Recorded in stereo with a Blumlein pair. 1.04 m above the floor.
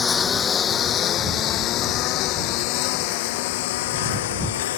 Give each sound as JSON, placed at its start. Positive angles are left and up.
{"t": 0.0, "sound": "a lawn mower", "azimuth_deg": 20}